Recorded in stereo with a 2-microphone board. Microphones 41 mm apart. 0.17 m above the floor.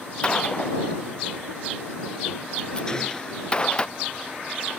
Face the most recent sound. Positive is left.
turn(degrees=20)  # may be behind; listen again after turning